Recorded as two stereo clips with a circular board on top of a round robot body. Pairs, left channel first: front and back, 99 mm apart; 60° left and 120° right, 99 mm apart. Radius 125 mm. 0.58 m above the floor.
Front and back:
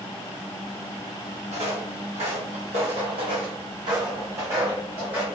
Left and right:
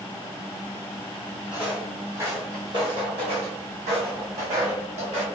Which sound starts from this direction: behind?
Footsteps, at 1.5 s.